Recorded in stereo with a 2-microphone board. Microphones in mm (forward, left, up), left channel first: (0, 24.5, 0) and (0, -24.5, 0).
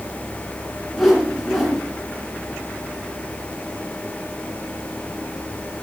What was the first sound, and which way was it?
A whoosh, 5° left (ahead or behind).